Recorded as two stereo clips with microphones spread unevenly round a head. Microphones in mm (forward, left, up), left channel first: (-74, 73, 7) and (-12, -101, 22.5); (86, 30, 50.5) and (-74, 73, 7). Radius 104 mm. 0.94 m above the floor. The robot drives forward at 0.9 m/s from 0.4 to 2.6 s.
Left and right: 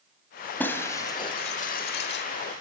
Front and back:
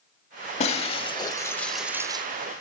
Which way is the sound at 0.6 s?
25° left.